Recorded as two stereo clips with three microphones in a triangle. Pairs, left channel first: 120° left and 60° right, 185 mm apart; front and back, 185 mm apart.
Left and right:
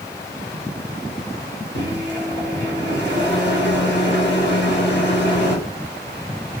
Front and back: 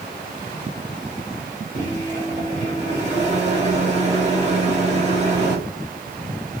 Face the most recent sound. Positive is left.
turn(degrees=130)